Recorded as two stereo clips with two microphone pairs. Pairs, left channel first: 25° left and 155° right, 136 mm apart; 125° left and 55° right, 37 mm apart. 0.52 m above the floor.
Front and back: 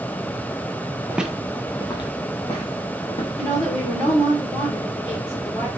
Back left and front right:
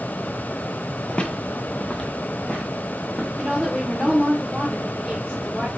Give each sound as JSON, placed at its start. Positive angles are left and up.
{"t": 1.1, "sound": "footsteps", "azimuth_deg": 150, "distance_m": 0.5}
{"t": 3.4, "sound": "a woman speaking", "azimuth_deg": 60, "distance_m": 1.5}